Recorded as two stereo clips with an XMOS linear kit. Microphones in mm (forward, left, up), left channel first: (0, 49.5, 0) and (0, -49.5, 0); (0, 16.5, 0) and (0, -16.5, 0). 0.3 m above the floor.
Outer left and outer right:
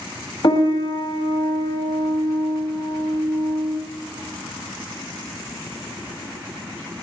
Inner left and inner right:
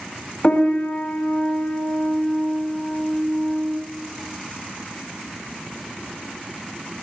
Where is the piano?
50° left (ahead or behind), 1.0 m.